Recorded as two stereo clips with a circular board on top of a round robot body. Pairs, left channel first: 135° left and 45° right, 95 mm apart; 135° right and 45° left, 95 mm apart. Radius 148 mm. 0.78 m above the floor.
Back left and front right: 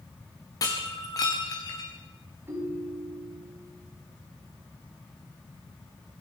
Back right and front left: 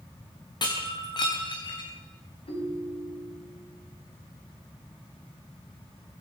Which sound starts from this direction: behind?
Breaking glass, at 0.6 s.